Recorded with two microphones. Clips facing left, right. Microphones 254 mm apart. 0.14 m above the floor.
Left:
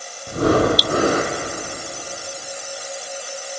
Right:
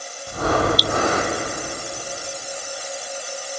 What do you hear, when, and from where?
0.3 s breathing: 40° left (ahead or behind), 3 m